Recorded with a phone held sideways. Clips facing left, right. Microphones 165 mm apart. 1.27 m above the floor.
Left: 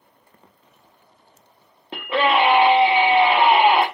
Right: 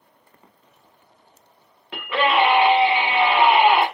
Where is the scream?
30° left (ahead or behind), 1.0 m.